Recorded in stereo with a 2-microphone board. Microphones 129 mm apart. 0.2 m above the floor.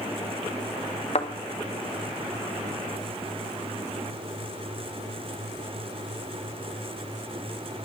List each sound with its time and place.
1.1 s a thud: 50° left (ahead or behind), 1.8 m